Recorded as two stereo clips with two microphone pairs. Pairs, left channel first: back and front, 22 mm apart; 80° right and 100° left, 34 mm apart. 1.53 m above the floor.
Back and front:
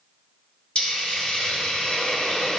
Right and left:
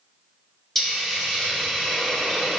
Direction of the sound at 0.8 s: 155° right.